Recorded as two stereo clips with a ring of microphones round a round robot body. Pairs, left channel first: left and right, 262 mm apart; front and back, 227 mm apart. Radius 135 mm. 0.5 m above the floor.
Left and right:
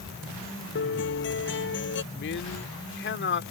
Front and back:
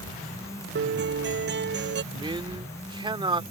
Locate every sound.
0.8 s a guitar: 140° left
2.1 s a man speaking: 115° left